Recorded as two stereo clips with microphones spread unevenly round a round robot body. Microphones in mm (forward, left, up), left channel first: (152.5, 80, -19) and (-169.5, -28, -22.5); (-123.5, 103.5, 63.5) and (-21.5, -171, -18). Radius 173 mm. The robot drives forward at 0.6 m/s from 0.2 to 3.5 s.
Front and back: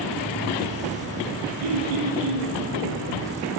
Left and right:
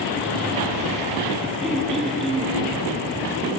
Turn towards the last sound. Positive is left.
turn(degrees=-165)